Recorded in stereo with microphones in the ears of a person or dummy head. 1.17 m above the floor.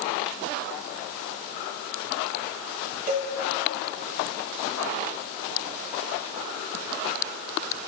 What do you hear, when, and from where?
3.1 s a cowbell: 40° right (ahead or behind), 1.7 m